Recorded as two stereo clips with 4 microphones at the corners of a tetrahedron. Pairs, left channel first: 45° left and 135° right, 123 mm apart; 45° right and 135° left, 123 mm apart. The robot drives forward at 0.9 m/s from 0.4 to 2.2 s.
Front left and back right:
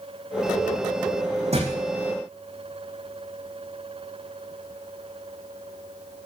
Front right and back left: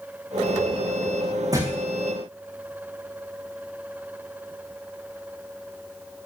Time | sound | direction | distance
1.5 | a thud | 165° right | 7.5 m